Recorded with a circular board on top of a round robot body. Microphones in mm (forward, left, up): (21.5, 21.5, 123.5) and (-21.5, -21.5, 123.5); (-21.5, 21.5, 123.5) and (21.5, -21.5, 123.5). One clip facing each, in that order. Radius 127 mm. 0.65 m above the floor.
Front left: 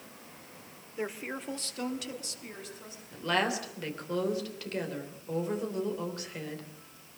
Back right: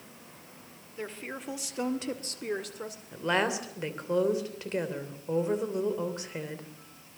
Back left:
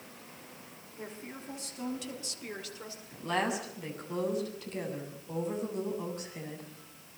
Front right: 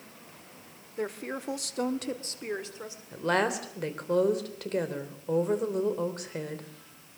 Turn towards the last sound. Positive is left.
turn(degrees=-70)